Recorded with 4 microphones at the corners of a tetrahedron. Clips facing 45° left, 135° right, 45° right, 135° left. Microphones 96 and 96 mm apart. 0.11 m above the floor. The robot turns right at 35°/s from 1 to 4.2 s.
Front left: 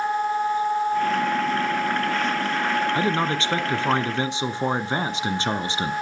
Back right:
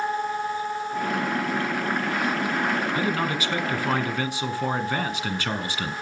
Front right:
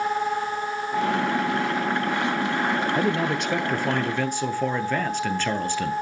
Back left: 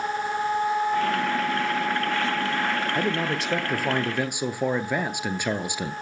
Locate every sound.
3.0 s a man speaking: 30° left, 1.1 m; by 5.9 s 75° left, 1.1 m